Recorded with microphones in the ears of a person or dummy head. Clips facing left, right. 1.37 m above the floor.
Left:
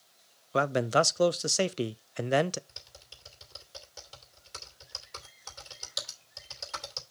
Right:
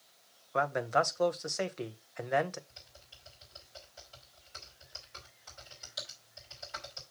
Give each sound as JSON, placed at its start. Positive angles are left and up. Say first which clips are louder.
{"t": 0.5, "sound": "a man speaking", "louder": "left 4 dB", "side_deg": 40, "distance_m": 0.5}
{"t": 2.7, "sound": "typing on a keyboard", "louder": "left 3 dB", "side_deg": 75, "distance_m": 3.0}